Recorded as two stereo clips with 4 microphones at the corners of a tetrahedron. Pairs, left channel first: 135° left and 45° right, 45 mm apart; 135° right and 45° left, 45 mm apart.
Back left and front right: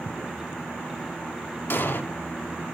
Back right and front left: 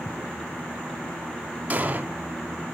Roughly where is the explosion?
Left.